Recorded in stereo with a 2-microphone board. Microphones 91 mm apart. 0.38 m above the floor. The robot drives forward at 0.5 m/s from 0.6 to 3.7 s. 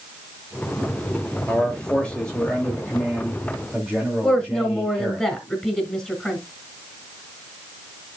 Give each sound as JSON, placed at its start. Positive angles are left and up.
{"t": 1.5, "sound": "a man speaking", "side_deg": 10, "distance_m": 1.0}
{"t": 4.2, "sound": "a woman speaking", "side_deg": 10, "distance_m": 3.0}